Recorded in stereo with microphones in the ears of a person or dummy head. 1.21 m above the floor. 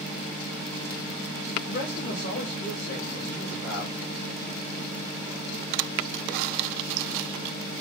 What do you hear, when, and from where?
1.7 s a man speaking: 50° left (ahead or behind), 2.5 m